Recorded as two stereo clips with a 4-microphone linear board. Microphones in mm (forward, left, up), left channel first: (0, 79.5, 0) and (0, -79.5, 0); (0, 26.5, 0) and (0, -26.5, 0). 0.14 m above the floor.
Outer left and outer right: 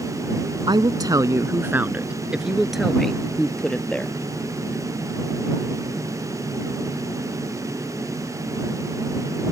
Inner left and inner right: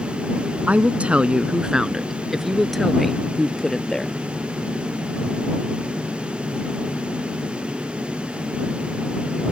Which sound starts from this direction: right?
A woman speaking, at 0.7 s.